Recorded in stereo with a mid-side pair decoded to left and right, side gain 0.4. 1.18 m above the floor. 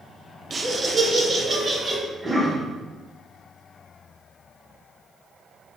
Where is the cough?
20° right, 1.1 m.